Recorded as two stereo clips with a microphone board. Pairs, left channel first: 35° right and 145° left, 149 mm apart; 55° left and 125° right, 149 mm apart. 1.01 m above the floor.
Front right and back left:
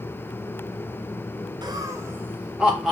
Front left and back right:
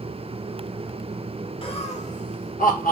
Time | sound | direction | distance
1.6 | laughter | 95° left | 0.7 m